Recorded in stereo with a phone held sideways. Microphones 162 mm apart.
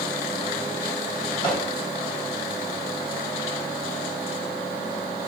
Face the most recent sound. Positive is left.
turn(degrees=30)  # may be behind; listen again after turning